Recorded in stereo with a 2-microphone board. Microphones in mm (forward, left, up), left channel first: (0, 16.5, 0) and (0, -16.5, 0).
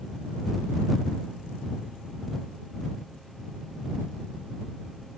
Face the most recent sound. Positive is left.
No sound to turn to.